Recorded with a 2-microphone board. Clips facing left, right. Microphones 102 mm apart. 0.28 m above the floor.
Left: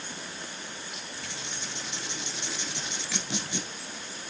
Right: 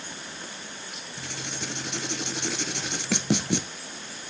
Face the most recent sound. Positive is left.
turn(degrees=-80)